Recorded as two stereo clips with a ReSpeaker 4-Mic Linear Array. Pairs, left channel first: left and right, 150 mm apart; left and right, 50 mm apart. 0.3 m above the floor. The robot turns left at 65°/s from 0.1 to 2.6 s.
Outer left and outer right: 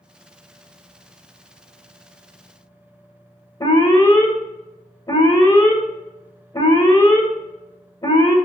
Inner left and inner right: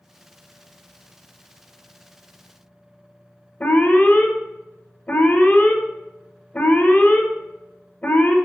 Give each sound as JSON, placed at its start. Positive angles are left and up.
{"t": 3.6, "sound": "an alarm", "side_deg": 25, "distance_m": 1.5}